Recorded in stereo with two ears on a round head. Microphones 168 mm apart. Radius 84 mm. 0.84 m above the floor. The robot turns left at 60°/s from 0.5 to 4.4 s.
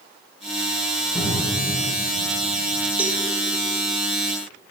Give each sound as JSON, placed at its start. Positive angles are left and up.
{"t": 1.1, "sound": "a cupboard door", "side_deg": 15, "distance_m": 2.5}
{"t": 3.0, "sound": "a cowbell", "side_deg": -5, "distance_m": 0.6}